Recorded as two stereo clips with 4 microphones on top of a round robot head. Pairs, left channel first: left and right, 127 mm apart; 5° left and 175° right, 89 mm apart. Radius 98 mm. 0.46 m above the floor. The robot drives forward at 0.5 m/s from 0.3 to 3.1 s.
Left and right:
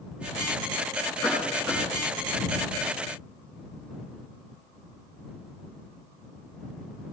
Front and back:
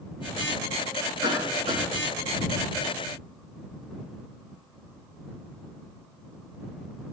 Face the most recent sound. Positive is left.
turn(degrees=180)